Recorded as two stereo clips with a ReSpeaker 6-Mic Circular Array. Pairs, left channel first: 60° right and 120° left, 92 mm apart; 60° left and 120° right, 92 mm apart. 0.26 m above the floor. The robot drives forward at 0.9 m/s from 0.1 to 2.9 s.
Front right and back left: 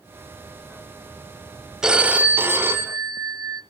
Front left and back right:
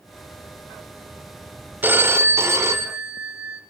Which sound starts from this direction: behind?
A phone ringing, at 1.8 s.